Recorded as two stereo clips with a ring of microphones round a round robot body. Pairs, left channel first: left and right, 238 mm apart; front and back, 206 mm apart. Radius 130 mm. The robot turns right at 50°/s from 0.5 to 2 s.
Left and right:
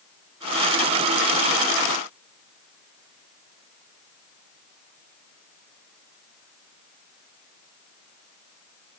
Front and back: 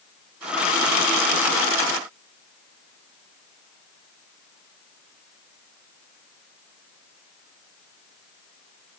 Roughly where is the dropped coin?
I don't hear a dropped coin.